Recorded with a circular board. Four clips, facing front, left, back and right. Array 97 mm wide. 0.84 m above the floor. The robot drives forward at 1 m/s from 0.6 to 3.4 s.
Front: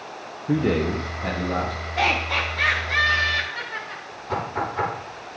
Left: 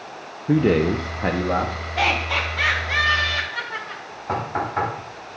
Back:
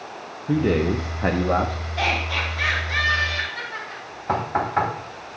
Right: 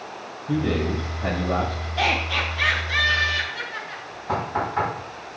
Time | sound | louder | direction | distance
0.5 | a man speaking | left 6 dB, back 1 dB | 80° left | 0.6 m
2.0 | laughter | left 2 dB, front 2 dB | 55° left | 3 m
4.3 | knocking | even, back 4 dB | 165° left | 3.5 m